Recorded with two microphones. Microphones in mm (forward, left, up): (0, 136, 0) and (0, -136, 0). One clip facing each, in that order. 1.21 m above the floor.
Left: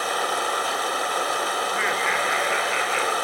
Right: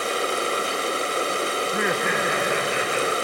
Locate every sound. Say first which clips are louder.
0.0 s running water: right 3 dB; 30° right (ahead or behind), 1.2 m
1.6 s laughter: right 4 dB; 55° right (ahead or behind), 0.9 m